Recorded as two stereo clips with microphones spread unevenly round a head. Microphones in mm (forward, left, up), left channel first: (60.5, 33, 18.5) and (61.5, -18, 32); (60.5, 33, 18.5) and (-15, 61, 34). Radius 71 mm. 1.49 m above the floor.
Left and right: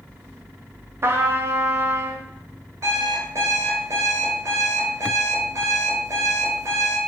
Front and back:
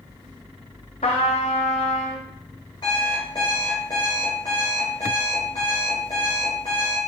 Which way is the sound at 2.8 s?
85° right.